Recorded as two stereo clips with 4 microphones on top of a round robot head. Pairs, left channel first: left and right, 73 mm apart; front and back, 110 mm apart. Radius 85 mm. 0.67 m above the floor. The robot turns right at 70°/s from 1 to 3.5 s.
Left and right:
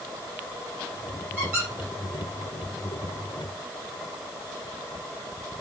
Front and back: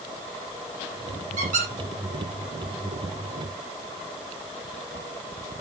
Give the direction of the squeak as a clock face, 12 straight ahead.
6 o'clock.